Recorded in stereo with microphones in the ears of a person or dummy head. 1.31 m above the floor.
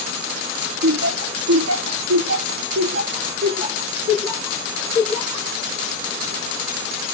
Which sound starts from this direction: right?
Laughter, at 0.8 s.